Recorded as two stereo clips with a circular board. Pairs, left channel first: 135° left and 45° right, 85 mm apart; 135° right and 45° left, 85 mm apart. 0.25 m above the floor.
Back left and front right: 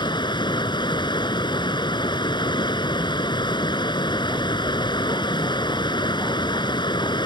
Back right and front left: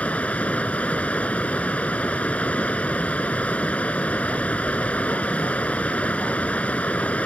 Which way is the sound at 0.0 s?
150° left.